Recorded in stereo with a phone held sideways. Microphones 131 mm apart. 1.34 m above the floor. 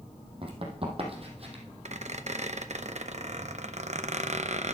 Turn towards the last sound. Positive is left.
turn(degrees=-60)  # may be behind; listen again after turning